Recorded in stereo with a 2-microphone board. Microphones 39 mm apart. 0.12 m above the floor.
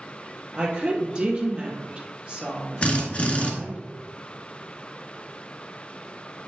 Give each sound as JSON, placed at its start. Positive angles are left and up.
{"t": 0.5, "sound": "a woman speaking", "side_deg": -25, "distance_m": 2.5}
{"t": 2.8, "sound": "a drill", "side_deg": 35, "distance_m": 1.8}